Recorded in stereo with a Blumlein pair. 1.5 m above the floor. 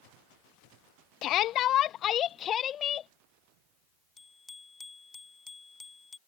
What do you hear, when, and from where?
1.2 s a shout: 35° left; by 3.1 s 25° left
4.2 s a bicycle bell: 10° left